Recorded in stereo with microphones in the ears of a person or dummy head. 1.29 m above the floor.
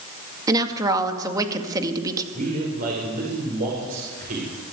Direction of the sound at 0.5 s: 20° right (ahead or behind).